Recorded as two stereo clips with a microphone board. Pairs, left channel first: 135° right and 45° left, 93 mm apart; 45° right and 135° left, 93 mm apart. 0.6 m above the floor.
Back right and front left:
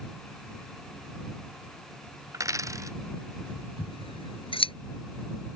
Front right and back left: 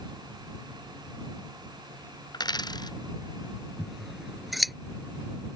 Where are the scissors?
135° right.